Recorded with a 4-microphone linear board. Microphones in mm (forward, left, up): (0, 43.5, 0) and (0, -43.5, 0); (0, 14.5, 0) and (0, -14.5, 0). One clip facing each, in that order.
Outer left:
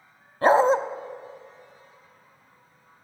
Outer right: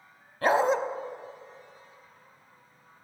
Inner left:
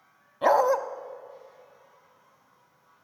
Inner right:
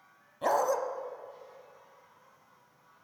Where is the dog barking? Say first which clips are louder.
Outer left 5 dB, inner left 7 dB; 30° left (ahead or behind), 0.6 m.